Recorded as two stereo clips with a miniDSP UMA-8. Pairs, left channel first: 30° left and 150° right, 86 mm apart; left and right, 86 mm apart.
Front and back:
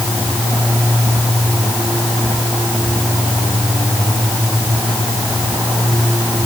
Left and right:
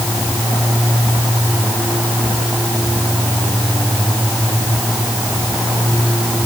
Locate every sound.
Only background noise.